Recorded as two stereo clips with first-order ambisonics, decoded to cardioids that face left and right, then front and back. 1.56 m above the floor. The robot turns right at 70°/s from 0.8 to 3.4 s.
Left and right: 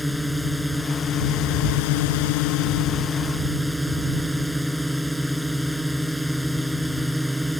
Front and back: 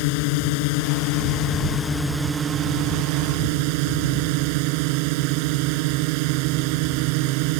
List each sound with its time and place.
0.0 s a drone: straight ahead; by 7.6 s straight behind